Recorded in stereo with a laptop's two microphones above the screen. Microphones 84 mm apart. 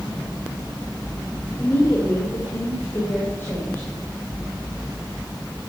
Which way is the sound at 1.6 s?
25° left (ahead or behind).